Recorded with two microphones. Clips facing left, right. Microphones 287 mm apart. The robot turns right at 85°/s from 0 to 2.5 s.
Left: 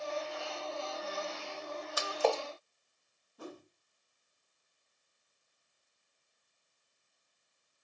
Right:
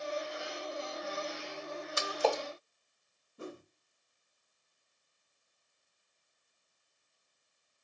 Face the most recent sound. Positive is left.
turn(degrees=-25)  # may be behind; listen again after turning